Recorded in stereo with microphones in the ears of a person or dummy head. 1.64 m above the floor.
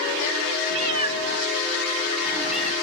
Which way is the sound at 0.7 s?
35° right (ahead or behind).